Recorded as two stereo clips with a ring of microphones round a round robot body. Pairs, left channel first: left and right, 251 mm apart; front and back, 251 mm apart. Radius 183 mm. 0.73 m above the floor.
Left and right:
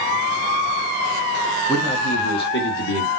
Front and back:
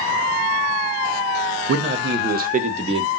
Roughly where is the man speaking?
Behind.